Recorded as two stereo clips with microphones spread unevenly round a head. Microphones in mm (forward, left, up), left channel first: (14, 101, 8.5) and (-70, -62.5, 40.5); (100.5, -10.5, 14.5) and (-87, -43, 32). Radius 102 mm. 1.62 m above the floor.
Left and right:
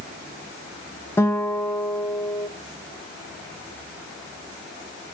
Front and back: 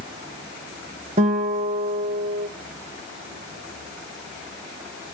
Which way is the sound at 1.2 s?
145° left.